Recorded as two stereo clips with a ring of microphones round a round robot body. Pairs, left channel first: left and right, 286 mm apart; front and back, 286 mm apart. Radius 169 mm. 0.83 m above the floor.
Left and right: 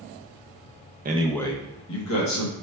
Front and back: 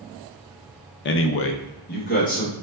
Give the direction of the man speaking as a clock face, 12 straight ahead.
1 o'clock.